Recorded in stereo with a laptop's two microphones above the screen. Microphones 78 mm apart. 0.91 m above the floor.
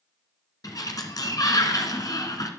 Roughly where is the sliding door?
Left.